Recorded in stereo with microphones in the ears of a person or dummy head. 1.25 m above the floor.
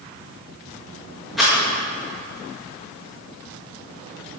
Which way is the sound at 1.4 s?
5° left (ahead or behind).